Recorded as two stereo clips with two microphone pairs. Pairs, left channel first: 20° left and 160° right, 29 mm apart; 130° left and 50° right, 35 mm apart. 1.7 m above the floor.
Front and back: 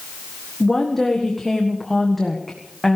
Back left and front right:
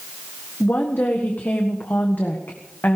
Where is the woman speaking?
100° left, 1.5 m.